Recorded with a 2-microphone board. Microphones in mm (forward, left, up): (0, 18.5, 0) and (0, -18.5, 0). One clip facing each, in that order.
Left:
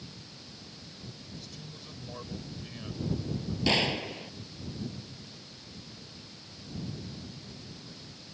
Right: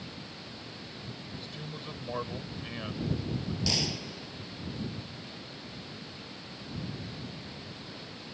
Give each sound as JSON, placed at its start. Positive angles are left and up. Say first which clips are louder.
{"t": 0.0, "sound": "running water", "louder": "right 5 dB", "side_deg": -25}
{"t": 1.4, "sound": "a man speaking", "louder": "right 5 dB", "side_deg": -35}
{"t": 3.7, "sound": "a gunshot", "louder": "left 8 dB", "side_deg": 35}